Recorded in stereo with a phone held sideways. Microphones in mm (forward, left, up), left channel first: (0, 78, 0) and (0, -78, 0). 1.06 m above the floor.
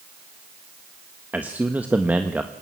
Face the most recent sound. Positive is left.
turn(degrees=-10)  # may be behind; listen again after turning